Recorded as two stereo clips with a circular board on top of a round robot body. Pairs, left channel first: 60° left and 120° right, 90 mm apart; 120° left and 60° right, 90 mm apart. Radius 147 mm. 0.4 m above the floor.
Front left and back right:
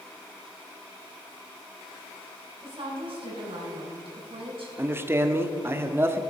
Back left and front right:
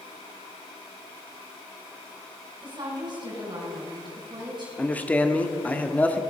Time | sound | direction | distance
2.6 | a woman speaking | 100° right | 4.5 m
4.8 | a man speaking | 175° right | 1.2 m